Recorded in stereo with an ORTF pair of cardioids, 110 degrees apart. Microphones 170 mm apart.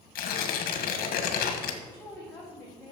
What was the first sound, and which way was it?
Tearing paper, 70° left.